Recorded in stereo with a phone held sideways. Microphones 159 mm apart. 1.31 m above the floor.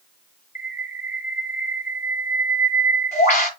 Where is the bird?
45° left (ahead or behind), 5.5 m.